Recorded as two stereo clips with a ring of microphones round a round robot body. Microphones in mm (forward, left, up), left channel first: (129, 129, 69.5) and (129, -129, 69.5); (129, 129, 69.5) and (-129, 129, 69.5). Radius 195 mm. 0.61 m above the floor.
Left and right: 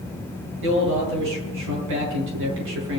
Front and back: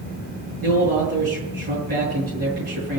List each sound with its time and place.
0.6 s a man speaking: 115° right, 8.5 m